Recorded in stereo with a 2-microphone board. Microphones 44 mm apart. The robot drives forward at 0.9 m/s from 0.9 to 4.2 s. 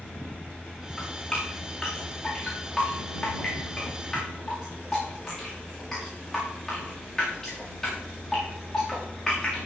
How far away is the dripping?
About 7.5 m.